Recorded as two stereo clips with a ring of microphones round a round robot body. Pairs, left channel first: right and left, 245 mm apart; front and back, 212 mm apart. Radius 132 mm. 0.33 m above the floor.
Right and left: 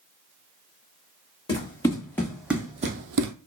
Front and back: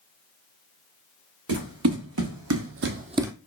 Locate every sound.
1.5 s running footsteps: 165° right, 2 m; by 3.3 s 95° left, 0.7 m